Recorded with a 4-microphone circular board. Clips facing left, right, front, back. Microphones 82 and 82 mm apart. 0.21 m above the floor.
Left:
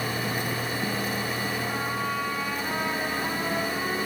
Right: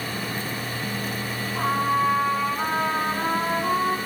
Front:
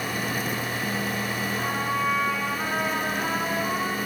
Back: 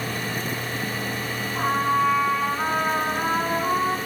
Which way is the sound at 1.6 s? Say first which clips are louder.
Right 7 dB, back 8 dB; 120° right.